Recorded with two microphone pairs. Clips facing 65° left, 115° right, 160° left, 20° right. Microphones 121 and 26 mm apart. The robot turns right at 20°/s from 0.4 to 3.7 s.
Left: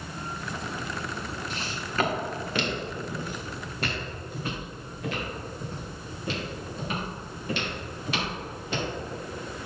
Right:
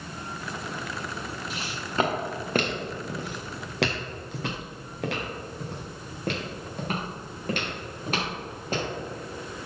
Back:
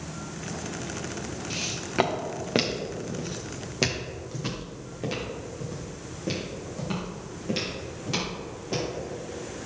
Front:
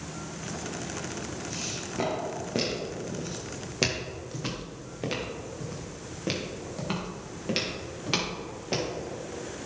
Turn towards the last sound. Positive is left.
turn(degrees=-70)